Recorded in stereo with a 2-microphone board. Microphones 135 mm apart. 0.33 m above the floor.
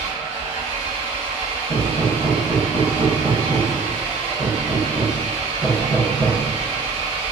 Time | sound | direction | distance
0.0 | an engine running | 45° right (ahead or behind) | 1.6 m
1.7 | hammering | 50° right (ahead or behind) | 1.5 m